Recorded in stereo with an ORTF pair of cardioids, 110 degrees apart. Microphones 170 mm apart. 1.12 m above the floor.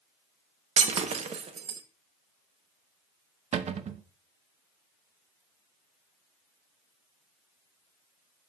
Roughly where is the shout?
No shout in this recording.